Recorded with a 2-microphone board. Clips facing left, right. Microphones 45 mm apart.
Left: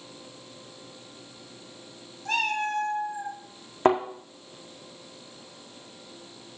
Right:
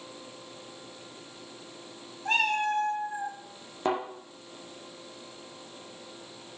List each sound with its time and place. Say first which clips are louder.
2.2 s a cat meowing: right 1 dB; 30° right (ahead or behind), 3 m
3.9 s a thud: left 7 dB; 50° left (ahead or behind), 2 m